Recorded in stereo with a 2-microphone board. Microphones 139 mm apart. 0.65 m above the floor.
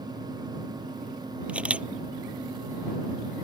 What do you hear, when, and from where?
1.5 s a camera shutter: 10° right (ahead or behind)